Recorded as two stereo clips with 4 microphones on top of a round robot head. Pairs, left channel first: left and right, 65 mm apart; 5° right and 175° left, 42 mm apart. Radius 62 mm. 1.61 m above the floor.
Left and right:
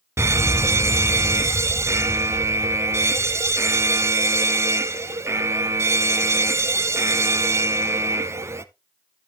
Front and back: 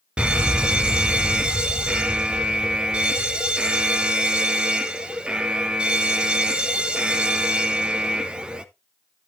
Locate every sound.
0.2 s a fire alarm: 120° right, 0.9 m